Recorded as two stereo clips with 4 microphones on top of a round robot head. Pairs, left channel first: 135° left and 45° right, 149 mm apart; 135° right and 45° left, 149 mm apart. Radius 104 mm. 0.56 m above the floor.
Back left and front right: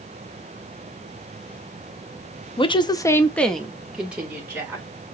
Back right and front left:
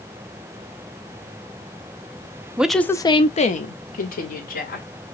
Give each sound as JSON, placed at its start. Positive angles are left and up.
{"t": 2.6, "sound": "a woman speaking", "azimuth_deg": 120, "distance_m": 0.8}